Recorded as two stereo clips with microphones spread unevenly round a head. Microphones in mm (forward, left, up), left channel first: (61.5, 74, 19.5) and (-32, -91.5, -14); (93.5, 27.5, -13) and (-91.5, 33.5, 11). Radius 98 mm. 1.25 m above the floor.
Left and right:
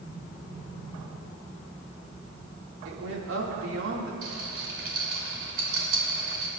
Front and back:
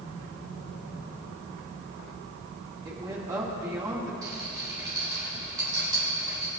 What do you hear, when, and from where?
2.9 s a woman speaking: 105° right, 2.5 m
4.2 s a rattle: 110° right, 4 m